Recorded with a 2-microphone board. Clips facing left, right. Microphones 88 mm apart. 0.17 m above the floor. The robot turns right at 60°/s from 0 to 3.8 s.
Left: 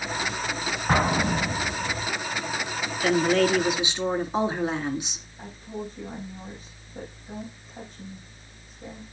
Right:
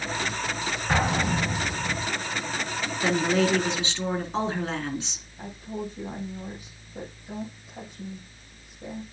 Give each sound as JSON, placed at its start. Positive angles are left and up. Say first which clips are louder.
{"t": 0.9, "sound": "an explosion", "louder": "left 2 dB", "azimuth_deg": 125, "distance_m": 5.5}
{"t": 3.0, "sound": "a woman speaking", "louder": "left 2 dB", "azimuth_deg": -30, "distance_m": 2.0}
{"t": 5.4, "sound": "a woman speaking", "louder": "right 1 dB", "side_deg": -10, "distance_m": 7.0}